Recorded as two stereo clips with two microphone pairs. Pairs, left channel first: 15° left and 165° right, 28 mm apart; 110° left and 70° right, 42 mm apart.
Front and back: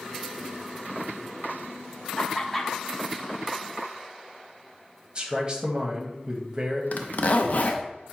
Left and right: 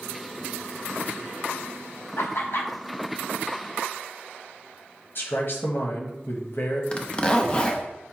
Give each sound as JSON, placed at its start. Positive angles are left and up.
{"t": 2.2, "sound": "laughter", "azimuth_deg": 95, "distance_m": 1.0}
{"t": 5.2, "sound": "a man speaking", "azimuth_deg": 135, "distance_m": 1.0}
{"t": 6.9, "sound": "a zipper", "azimuth_deg": 45, "distance_m": 0.5}